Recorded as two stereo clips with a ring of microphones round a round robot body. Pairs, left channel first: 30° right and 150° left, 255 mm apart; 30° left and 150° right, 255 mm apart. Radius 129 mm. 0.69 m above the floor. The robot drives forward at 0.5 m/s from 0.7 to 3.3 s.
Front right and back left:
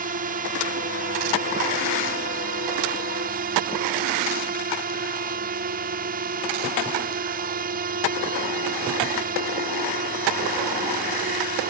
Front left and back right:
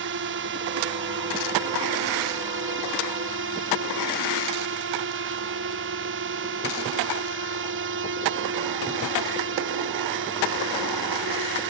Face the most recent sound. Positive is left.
turn(degrees=-165)